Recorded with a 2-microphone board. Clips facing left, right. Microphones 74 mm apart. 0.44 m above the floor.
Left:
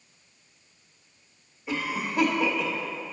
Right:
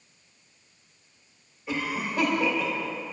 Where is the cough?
10° left (ahead or behind), 1.1 m.